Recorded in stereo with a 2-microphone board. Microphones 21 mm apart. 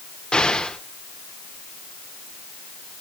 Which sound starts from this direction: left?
An explosion, at 0.3 s.